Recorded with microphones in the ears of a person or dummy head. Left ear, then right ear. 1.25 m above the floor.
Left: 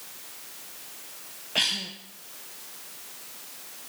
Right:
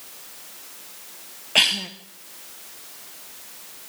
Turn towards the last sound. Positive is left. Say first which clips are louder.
# right 7 dB
turn(degrees=-35)  # may be behind; listen again after turning